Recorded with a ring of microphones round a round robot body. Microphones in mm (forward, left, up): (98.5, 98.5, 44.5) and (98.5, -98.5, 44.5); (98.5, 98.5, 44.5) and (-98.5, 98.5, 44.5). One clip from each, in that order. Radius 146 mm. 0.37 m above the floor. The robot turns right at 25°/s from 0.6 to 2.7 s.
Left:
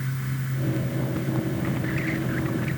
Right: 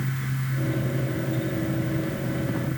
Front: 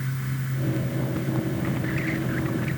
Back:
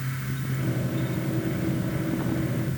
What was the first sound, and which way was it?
Only background noise.